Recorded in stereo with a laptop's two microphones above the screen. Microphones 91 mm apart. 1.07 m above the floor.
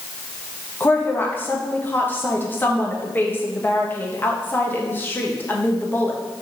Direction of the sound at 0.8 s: 20° left (ahead or behind).